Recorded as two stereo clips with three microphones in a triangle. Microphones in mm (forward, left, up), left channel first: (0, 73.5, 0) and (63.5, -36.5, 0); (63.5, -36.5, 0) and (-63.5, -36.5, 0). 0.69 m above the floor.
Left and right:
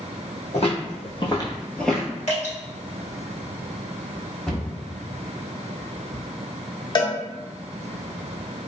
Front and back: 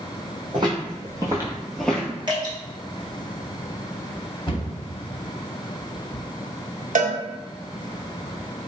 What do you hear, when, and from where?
0.5 s footsteps: 135° left, 1.3 m; by 2.1 s 10° right, 0.6 m
2.3 s dripping: 130° left, 1.1 m
4.5 s a cupboard door: 35° left, 1.1 m
7.0 s a cowbell: 170° left, 0.6 m